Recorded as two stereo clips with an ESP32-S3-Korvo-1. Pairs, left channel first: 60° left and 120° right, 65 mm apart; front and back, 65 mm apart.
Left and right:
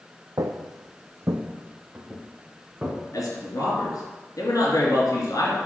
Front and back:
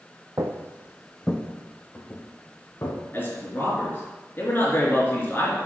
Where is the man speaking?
55° left, 3 m.